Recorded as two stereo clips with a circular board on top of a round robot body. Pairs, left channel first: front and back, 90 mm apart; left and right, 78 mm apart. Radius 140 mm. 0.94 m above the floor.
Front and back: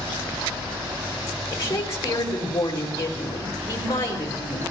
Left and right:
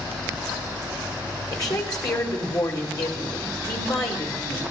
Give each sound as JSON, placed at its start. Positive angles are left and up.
{"t": 1.5, "sound": "a woman speaking", "azimuth_deg": 55, "distance_m": 5.0}